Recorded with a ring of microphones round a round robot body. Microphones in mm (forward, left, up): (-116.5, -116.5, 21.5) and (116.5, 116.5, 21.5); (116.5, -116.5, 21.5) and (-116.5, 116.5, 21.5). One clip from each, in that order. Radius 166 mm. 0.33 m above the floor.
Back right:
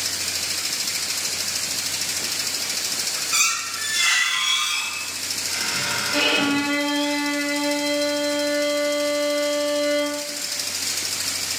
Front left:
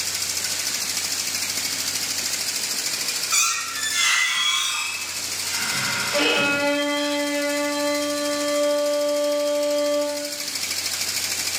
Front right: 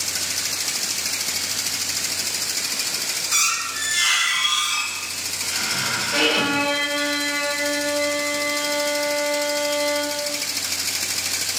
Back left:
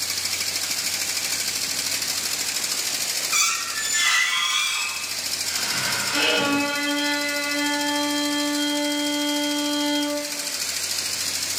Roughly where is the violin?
Ahead right.